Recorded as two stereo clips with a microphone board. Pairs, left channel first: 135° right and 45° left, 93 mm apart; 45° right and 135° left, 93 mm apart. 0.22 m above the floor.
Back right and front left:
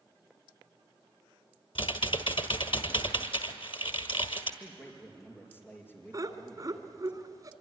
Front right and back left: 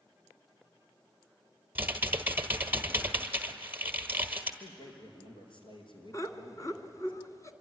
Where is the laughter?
Straight ahead, 1.9 m.